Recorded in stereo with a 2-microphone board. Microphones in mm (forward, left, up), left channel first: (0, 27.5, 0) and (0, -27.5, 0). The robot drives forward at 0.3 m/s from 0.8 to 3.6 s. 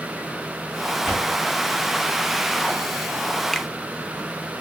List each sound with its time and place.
1.0 s a door slam: 5° right (ahead or behind), 6 m
3.5 s a finger snap: 5° left (ahead or behind), 0.8 m